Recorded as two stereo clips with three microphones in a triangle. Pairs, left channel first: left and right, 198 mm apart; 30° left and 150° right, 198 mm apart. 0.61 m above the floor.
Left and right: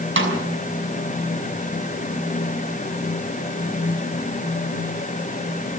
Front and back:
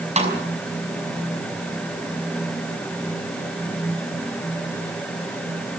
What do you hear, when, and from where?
0.2 s a snare drum: 95° right, 6 m